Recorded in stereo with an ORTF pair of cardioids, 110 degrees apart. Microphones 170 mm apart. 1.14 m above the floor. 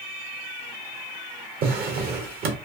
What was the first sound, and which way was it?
A drawer, 60° right.